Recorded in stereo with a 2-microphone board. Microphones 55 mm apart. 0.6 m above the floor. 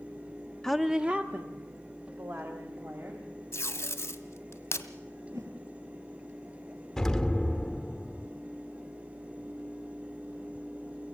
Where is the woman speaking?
5° left (ahead or behind), 0.6 m; by 3.3 s 55° right (ahead or behind), 3 m.